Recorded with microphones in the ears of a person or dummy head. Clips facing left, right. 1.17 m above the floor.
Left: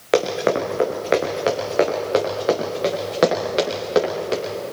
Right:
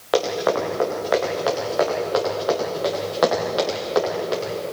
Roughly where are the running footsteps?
Left.